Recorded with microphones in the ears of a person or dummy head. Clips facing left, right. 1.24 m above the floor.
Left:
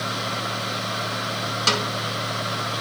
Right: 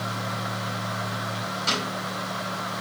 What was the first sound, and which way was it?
A snare drum, 85° left.